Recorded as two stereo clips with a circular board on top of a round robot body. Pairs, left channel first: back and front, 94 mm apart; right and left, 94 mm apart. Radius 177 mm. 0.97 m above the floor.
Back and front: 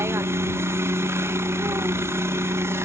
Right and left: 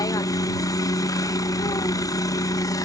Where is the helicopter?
55° right.